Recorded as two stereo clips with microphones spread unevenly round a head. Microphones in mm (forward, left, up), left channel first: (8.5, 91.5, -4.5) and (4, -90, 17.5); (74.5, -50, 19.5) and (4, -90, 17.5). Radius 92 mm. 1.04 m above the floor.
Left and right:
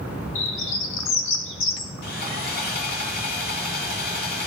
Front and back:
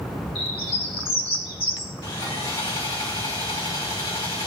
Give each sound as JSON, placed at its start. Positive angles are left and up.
{"t": 0.3, "sound": "a bird", "azimuth_deg": 70, "distance_m": 1.0}
{"t": 2.0, "sound": "sawing", "azimuth_deg": 60, "distance_m": 1.5}